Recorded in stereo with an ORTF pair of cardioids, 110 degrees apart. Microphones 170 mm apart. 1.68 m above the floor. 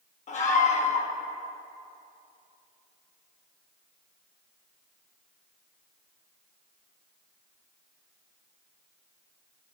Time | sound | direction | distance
0.3 | a scream | 45° left | 1.8 m